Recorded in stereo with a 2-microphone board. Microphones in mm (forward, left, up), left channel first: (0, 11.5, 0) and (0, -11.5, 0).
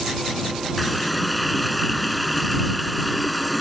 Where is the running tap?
Centre (ahead or behind).